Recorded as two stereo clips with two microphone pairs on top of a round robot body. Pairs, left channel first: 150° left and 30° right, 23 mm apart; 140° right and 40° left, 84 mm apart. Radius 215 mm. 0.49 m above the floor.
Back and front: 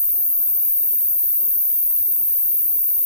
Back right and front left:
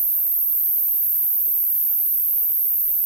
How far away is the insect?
About 0.8 m.